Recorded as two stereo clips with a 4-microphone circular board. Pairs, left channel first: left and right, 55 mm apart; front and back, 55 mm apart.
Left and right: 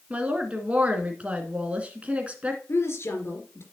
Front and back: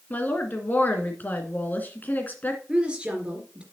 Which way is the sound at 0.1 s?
35° right.